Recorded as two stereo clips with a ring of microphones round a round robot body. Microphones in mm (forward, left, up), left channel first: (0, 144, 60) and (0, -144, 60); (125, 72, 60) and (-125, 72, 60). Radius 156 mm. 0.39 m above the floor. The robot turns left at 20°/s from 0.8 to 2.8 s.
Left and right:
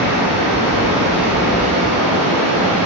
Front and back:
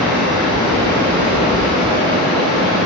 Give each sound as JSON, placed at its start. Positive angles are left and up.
{"t": 0.0, "sound": "running water", "azimuth_deg": 90, "distance_m": 1.8}